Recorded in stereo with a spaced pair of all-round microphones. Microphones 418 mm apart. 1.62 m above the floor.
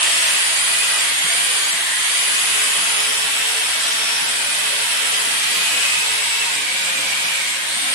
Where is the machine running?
55° right (ahead or behind), 1.5 m.